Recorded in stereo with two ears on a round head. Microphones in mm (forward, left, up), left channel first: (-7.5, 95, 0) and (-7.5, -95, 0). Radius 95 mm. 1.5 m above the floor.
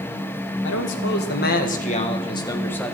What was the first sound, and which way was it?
A man speaking, 60° left (ahead or behind).